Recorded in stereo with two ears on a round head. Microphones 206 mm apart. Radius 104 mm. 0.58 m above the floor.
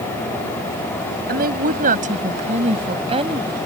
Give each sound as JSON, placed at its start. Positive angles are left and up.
{"t": 1.3, "sound": "a woman speaking", "side_deg": -40}